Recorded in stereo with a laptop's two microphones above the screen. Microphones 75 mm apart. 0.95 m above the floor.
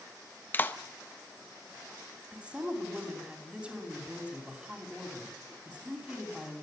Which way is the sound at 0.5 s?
30° left (ahead or behind).